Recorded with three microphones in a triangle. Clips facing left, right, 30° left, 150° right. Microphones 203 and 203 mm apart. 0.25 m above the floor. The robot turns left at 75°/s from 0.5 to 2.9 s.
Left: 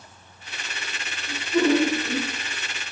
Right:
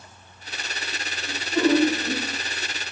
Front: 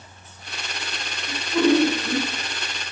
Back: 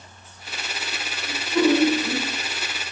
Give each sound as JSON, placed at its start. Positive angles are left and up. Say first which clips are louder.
{"t": 1.3, "sound": "laughter", "louder": "even, front 1 dB", "azimuth_deg": -80, "distance_m": 1.6}